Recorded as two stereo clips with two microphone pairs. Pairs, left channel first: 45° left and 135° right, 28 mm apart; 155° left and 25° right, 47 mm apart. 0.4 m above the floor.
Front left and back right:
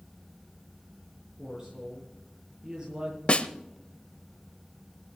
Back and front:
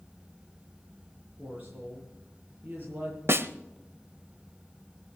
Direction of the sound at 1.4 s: 70° right.